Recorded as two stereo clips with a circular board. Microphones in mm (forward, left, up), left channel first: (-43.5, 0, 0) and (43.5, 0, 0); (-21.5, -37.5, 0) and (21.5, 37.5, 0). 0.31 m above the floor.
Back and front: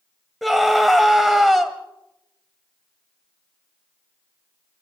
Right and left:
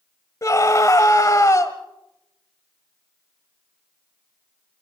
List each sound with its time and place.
0.4 s a scream: 90° right, 1.3 m